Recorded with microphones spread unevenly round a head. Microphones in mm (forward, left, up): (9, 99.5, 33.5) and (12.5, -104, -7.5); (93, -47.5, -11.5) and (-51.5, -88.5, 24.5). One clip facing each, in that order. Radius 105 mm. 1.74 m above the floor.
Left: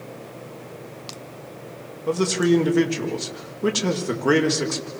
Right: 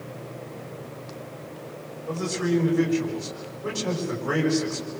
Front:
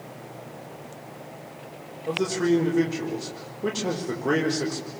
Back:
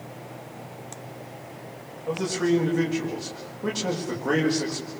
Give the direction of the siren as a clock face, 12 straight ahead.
No siren in this recording.